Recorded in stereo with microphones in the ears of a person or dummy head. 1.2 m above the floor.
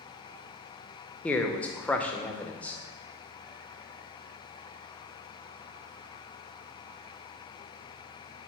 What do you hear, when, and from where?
1.2 s a man speaking: centre (ahead or behind), 0.5 m